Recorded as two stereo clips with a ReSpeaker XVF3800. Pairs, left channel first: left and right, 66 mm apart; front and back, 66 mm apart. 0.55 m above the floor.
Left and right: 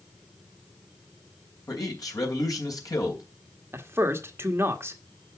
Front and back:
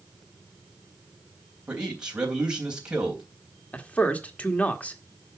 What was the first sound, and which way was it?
A man speaking, 105° left.